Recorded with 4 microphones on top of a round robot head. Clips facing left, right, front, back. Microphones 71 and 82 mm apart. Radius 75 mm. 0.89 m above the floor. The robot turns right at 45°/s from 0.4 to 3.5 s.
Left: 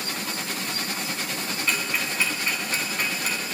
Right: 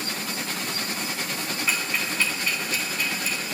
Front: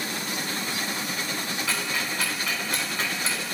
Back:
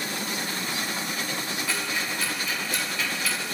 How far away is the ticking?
About 8.5 m.